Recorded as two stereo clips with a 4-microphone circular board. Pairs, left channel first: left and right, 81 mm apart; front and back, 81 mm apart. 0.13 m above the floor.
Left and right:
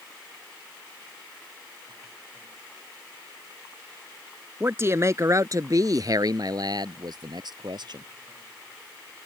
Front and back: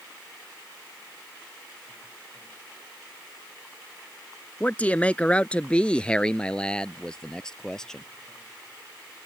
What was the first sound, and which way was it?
A man speaking, 55° right.